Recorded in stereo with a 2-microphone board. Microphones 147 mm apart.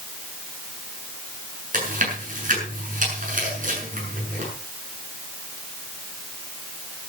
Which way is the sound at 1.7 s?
60° right (ahead or behind).